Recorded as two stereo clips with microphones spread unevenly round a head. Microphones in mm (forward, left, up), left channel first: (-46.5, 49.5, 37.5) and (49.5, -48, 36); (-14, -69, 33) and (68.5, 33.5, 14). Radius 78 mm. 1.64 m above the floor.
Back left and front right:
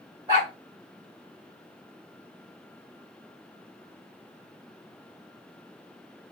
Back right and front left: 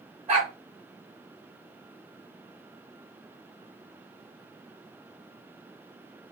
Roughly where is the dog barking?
Ahead.